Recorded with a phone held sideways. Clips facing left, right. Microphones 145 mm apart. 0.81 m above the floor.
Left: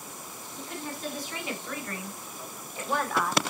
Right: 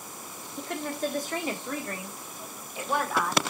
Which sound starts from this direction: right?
A woman speaking, at 0.6 s.